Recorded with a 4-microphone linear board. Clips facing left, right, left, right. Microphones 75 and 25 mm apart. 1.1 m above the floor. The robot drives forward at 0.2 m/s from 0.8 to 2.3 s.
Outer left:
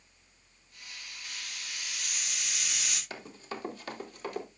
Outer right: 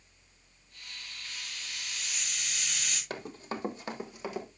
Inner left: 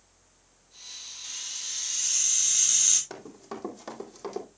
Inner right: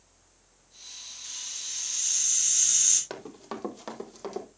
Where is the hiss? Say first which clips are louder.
Outer left 1 dB, inner left 1 dB; 15° left (ahead or behind), 5 m.